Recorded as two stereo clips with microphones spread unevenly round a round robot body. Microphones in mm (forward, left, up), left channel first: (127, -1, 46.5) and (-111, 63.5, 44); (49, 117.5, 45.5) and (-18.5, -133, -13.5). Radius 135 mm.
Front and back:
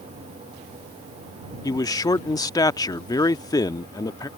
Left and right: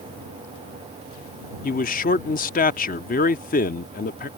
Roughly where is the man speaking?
Ahead left.